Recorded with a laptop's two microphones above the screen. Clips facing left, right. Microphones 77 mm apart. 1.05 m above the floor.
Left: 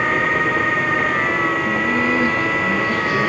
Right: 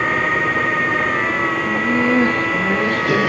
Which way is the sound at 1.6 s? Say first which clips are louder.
Right 1 dB; 10° right (ahead or behind).